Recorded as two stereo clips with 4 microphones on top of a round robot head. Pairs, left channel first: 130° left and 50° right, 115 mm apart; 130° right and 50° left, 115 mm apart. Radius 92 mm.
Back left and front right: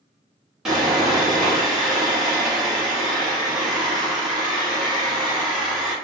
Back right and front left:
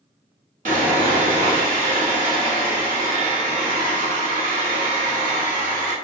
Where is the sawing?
35° left, 1.1 m.